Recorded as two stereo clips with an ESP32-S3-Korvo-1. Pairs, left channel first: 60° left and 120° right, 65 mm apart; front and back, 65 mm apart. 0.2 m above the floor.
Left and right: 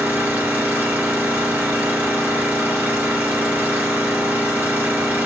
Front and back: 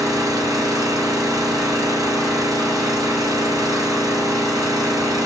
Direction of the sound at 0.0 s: 175° left.